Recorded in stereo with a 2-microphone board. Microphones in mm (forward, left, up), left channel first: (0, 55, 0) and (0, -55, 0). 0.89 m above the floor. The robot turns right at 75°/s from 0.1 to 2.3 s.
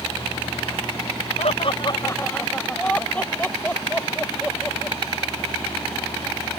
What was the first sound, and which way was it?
Laughter, 80° left.